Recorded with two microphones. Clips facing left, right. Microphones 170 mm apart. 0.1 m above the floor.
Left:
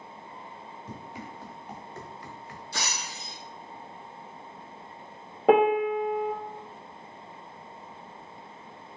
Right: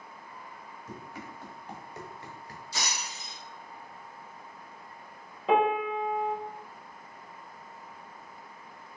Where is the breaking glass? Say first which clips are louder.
Left 1 dB; 60° left (ahead or behind), 1.4 m.